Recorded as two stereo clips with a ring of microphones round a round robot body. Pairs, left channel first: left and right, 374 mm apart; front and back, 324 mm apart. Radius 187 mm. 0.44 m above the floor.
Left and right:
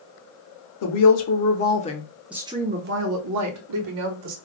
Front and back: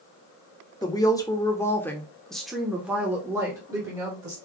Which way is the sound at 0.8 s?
75° left.